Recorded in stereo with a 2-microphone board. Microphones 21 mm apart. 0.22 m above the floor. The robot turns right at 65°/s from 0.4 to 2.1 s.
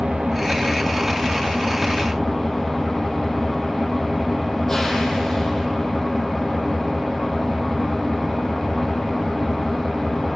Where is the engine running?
85° right, 3 m; by 10.4 s 25° left, 3 m.